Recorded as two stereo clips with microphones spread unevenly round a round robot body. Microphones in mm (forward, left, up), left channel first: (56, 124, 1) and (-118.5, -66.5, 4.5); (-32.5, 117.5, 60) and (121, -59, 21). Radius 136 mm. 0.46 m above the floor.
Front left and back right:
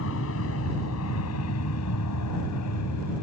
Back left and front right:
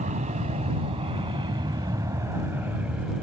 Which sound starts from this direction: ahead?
An aircraft, at 0.0 s.